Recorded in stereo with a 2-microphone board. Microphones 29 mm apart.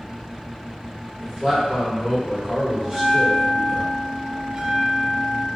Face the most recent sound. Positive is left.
turn(degrees=-20)  # may be behind; listen again after turning